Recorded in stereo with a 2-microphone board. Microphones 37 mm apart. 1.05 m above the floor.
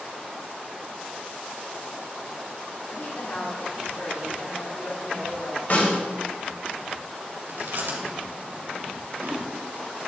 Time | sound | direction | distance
2.9 | a woman speaking | 55° left (ahead or behind) | 2 m
5.7 | a snare drum | 50° left (ahead or behind) | 5 m
7.5 | chewing | 65° right (ahead or behind) | 3 m